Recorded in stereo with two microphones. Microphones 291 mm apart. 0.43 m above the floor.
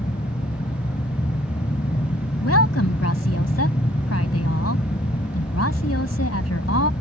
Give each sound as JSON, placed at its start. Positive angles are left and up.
{"t": 0.0, "sound": "an aircraft", "side_deg": 25}
{"t": 2.4, "sound": "a woman speaking", "side_deg": 55}